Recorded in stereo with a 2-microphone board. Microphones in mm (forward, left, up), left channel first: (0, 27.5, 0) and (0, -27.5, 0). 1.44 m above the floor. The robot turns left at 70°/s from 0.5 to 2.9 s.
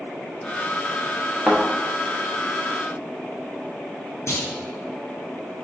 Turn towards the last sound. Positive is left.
turn(degrees=55)  # may be behind; listen again after turning